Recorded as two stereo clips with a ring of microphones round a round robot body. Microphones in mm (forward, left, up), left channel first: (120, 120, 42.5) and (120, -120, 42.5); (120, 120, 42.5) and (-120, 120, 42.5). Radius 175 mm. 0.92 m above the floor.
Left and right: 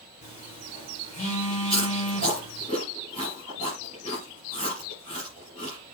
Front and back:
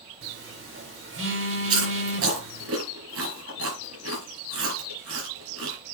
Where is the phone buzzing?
160° left, 4.5 m.